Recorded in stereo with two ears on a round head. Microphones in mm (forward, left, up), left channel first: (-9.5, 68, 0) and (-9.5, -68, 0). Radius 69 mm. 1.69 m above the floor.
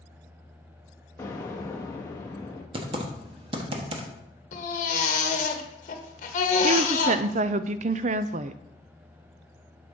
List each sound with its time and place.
1.2 s an explosion: 20° left (ahead or behind), 1.1 m
2.7 s typing on a keyboard: 35° right (ahead or behind), 1.2 m
4.5 s a baby crying: 50° left (ahead or behind), 1.2 m
6.6 s a woman speaking: 50° right (ahead or behind), 0.5 m